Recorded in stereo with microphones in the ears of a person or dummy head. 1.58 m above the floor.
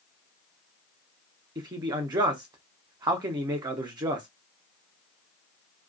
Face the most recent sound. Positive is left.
turn(degrees=-20)  # may be behind; listen again after turning